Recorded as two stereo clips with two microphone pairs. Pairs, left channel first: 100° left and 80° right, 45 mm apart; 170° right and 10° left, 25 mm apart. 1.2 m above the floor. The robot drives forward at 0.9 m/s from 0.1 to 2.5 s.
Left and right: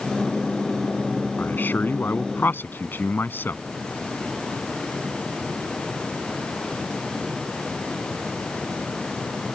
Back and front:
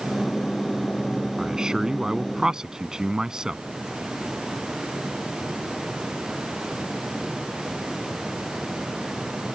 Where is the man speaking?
65° left; by 3.6 s 70° left.